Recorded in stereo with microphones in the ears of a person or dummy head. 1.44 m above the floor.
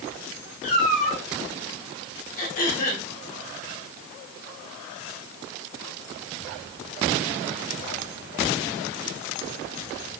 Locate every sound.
0.6 s a cat meowing: 50° left (ahead or behind), 5 m
2.4 s throat clearing: 55° left (ahead or behind), 3 m